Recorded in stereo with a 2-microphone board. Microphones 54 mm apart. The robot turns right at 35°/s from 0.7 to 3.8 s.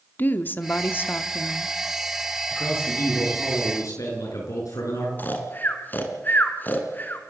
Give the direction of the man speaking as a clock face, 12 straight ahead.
10 o'clock.